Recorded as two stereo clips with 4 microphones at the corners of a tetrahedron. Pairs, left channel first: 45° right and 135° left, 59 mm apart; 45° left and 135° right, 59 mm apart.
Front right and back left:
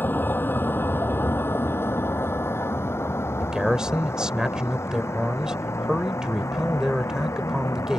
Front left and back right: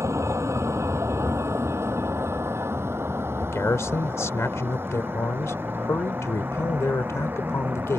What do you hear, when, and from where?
0.0 s a vehicle: 100° right; by 8.0 s 80° right
3.4 s a man speaking: 60° left